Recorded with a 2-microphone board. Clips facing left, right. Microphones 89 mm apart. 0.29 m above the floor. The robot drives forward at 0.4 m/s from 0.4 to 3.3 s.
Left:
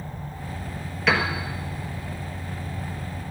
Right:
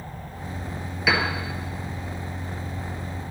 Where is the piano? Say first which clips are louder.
Left 1 dB; 5° right (ahead or behind), 1.3 m.